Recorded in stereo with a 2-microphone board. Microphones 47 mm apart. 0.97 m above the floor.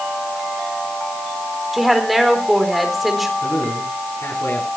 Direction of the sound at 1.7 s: Centre (ahead or behind).